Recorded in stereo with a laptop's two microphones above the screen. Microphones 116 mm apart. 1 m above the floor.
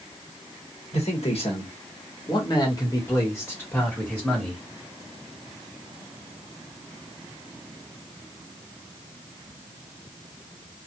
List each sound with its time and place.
0.9 s a man speaking: 65° left (ahead or behind), 1.4 m; by 4.6 s 5° left (ahead or behind), 1.8 m